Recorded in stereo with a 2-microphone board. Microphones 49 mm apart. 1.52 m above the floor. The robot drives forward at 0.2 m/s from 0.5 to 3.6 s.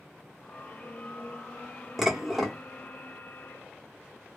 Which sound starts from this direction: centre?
Dishes clattering, at 2.0 s.